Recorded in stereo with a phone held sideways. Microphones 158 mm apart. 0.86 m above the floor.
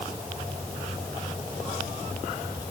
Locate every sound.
Only background noise.